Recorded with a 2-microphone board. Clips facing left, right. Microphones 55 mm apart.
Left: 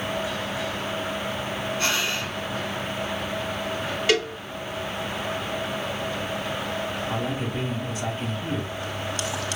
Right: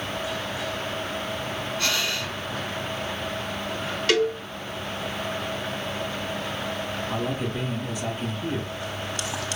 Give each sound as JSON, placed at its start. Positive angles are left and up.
{"t": 1.8, "sound": "breathing", "side_deg": 25, "distance_m": 0.6}
{"t": 4.1, "sound": "a cowbell", "side_deg": 15, "distance_m": 1.7}
{"t": 7.1, "sound": "a man speaking", "side_deg": 25, "distance_m": 1.2}